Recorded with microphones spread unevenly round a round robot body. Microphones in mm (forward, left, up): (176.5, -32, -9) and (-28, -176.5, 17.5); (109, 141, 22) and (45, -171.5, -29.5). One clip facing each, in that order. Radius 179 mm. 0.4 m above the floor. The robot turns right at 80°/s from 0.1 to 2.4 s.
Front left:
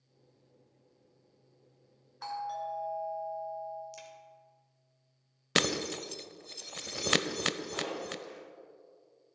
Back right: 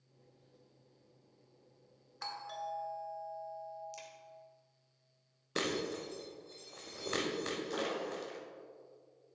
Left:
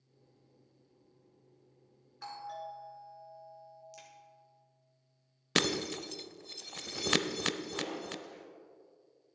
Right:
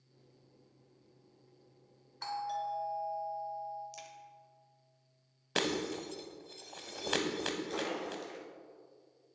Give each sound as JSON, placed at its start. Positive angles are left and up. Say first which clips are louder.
{"t": 2.2, "sound": "a doorbell", "louder": "front left 6 dB, right 5 dB", "azimuth_deg": -140, "distance_m": 1.7}
{"t": 3.9, "sound": "a crack", "louder": "front left 2 dB, right 3 dB", "azimuth_deg": -30, "distance_m": 1.4}
{"t": 5.5, "sound": "breaking glass", "louder": "front left 3 dB, left 1 dB", "azimuth_deg": 20, "distance_m": 0.5}
{"t": 7.7, "sound": "a splash", "louder": "even, right 2 dB", "azimuth_deg": -115, "distance_m": 2.5}